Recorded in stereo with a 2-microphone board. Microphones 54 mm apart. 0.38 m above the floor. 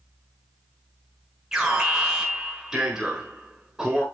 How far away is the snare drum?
No snare drum in this recording.